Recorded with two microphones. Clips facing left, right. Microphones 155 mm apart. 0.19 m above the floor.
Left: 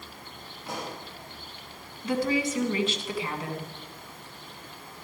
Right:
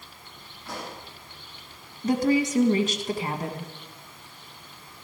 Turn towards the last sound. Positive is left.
turn(degrees=-45)  # may be behind; listen again after turning